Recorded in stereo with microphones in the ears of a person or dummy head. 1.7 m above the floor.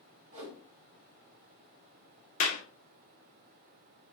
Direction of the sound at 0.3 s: 45° right (ahead or behind).